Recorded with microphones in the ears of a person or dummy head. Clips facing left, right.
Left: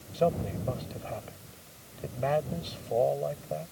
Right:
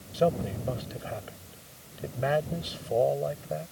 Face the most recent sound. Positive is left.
turn(degrees=-10)  # may be behind; listen again after turning